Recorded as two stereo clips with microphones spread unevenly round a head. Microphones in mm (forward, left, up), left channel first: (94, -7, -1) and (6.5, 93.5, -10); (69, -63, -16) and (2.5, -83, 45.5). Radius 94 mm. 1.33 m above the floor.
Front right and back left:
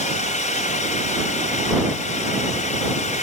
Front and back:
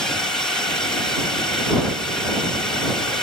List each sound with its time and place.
0.0 s a drone: 30° right